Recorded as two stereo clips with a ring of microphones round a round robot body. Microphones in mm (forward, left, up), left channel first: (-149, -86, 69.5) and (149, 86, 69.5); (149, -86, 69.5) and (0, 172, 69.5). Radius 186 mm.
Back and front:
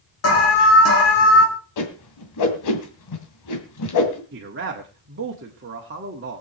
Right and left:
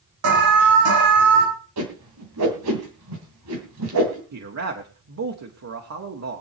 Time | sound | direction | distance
0.2 | an alarm | 155° left | 3 m
1.8 | a whoosh | 170° left | 2 m
4.3 | a man speaking | 85° left | 1.8 m